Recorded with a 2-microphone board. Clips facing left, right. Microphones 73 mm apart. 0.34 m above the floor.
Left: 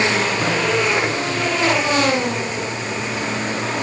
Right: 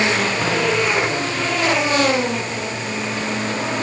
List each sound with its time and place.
Only background noise.